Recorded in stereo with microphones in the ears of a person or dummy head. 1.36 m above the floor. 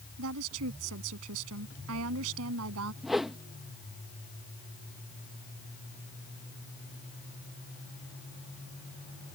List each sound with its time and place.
0.2 s a woman speaking: 75° right (ahead or behind)
3.0 s a whoosh: centre (ahead or behind)